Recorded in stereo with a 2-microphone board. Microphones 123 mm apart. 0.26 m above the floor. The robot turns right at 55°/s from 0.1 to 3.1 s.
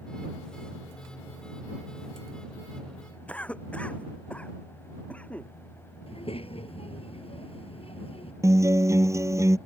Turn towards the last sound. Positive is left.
turn(degrees=-25)  # may be behind; listen again after turning